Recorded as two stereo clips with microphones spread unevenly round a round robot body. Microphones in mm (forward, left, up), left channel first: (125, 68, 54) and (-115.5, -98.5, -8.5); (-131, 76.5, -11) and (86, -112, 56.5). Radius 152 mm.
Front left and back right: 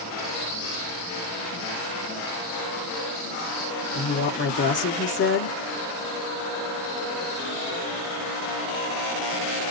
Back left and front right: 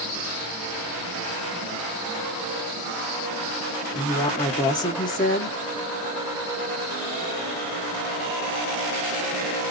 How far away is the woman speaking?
About 1.1 m.